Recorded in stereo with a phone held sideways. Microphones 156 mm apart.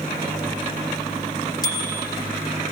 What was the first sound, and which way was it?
A bicycle bell, 25° left (ahead or behind).